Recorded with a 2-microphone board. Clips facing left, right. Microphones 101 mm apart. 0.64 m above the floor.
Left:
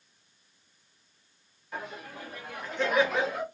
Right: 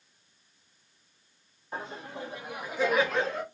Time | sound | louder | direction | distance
1.7 | laughter | right 1 dB | 30° right (ahead or behind) | 0.8 m